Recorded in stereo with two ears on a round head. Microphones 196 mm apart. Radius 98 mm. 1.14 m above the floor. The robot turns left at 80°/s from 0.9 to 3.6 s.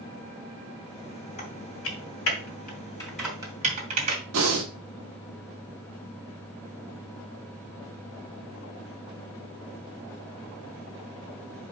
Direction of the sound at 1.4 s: 35° left (ahead or behind).